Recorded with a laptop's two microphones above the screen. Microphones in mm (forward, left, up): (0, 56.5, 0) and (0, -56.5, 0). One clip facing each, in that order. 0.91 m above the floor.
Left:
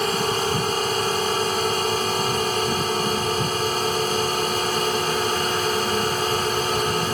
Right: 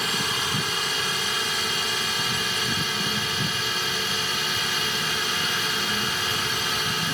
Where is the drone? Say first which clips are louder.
Left 7 dB; 45° left (ahead or behind).